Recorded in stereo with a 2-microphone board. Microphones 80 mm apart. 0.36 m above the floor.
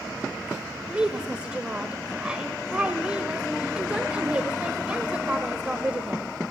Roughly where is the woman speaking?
Centre.